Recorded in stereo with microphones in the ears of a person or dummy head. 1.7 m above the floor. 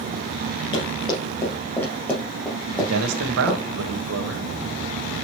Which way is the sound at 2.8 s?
85° right.